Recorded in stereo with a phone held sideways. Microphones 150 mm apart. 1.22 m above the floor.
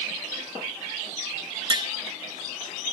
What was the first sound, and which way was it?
Tapping, 35° right (ahead or behind).